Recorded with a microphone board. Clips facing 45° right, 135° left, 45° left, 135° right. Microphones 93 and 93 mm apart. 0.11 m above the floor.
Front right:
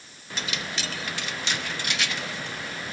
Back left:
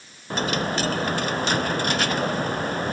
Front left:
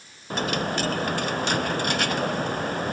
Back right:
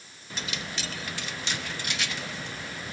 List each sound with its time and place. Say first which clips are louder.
0.3 s a dropped coin: back left 9 dB, front left 11 dB; 85° left